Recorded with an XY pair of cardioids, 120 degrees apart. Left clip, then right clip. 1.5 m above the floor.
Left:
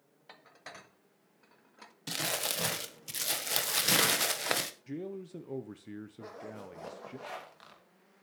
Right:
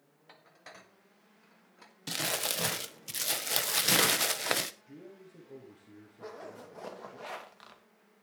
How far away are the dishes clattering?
About 1.6 m.